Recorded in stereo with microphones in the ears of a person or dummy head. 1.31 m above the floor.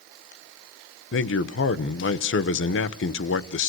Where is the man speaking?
60° left (ahead or behind), 0.9 m.